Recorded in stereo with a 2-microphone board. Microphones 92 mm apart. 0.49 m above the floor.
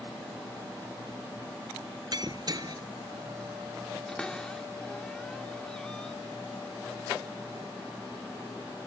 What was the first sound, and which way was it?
Breaking glass, 50° right (ahead or behind).